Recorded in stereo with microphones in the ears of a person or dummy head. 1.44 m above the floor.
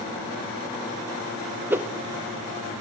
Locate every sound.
1.7 s a whoosh: 10° right (ahead or behind), 0.7 m